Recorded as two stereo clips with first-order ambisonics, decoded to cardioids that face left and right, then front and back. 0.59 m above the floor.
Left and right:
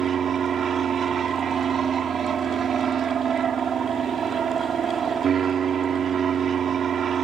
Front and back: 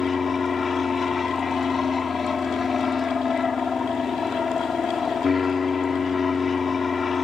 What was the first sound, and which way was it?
An aircraft, 55° right.